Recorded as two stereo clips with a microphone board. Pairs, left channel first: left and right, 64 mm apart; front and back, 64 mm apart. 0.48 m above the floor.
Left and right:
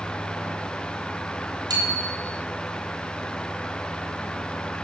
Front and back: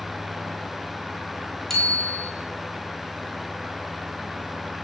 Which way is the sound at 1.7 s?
90° right.